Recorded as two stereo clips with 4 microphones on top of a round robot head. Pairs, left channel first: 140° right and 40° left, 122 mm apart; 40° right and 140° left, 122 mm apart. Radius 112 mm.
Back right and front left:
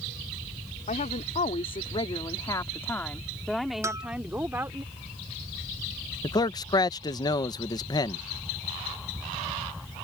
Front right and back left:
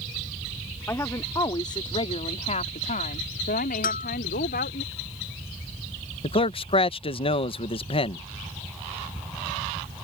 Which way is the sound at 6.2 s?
85° right.